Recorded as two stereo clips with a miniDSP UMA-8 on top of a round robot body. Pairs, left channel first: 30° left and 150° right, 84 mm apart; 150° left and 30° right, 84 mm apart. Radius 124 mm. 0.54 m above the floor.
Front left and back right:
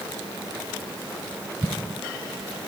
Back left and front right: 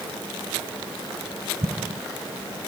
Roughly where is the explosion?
Ahead right.